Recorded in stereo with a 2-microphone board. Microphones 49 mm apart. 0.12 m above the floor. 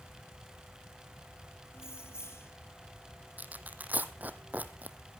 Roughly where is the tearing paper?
Right.